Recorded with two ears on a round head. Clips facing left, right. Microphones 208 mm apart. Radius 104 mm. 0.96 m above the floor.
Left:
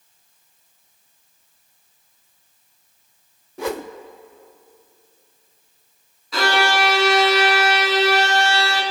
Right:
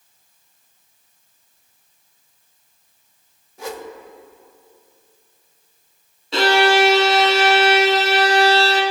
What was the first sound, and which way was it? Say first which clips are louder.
A whoosh: left 5 dB; 50° left (ahead or behind).